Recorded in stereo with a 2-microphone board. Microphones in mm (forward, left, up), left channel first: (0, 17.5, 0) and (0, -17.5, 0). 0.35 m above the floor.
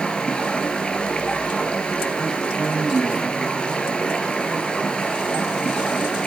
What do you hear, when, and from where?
0.0 s running water: 30° left (ahead or behind), 3 m